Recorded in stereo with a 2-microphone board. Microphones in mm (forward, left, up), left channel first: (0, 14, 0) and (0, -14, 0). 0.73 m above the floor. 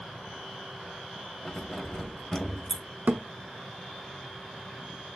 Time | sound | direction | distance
1.4 | keys jangling | 25° left (ahead or behind) | 0.7 m
3.1 | a thud | 85° right | 0.7 m